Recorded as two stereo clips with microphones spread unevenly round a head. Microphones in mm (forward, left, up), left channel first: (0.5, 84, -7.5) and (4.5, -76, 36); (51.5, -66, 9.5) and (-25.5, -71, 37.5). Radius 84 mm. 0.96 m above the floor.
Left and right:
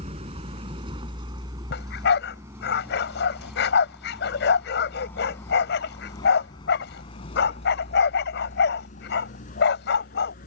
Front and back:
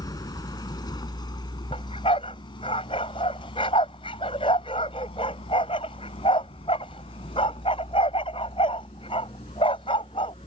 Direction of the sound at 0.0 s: 35° right.